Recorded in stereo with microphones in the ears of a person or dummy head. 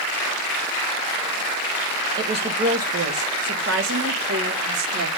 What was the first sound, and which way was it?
A woman speaking, 25° right (ahead or behind).